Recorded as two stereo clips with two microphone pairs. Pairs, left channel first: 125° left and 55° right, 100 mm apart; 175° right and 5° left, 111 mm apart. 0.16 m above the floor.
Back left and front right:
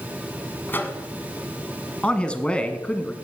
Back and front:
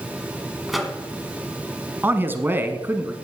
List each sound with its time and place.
0.7 s a microwave: 90° left, 1.4 m
2.0 s a man speaking: 55° left, 1.1 m